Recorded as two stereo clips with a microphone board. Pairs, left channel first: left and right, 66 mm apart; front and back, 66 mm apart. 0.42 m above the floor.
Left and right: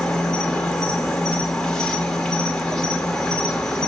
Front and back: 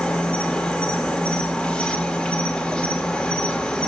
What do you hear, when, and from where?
0.0 s an insect: 30° left, 2 m